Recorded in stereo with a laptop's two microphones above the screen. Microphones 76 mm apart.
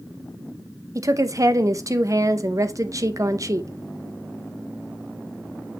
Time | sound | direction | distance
0.9 | a woman speaking | 45° right (ahead or behind) | 0.6 m